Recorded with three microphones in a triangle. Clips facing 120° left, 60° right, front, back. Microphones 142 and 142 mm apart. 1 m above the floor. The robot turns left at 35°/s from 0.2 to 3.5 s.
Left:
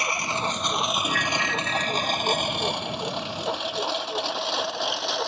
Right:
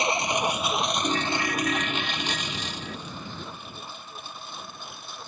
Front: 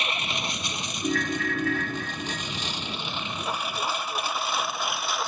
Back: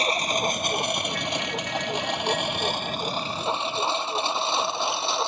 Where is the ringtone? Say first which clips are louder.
Right 1 dB, front 3 dB; 5° left; by 3.0 s 60° right.